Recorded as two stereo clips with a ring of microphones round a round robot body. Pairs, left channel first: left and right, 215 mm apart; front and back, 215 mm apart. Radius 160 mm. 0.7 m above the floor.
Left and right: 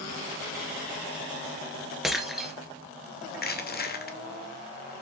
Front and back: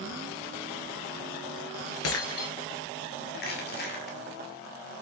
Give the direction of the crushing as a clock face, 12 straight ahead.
10 o'clock.